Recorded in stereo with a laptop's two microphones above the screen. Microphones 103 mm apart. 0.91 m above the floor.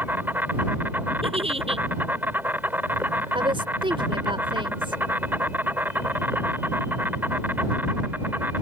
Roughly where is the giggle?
Right.